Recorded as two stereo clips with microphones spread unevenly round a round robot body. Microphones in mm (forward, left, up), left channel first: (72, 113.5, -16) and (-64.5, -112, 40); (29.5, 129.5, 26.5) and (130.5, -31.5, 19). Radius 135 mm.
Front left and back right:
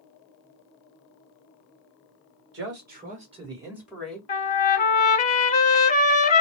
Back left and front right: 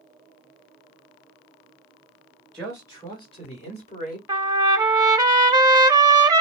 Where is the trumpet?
10° left, 0.8 m.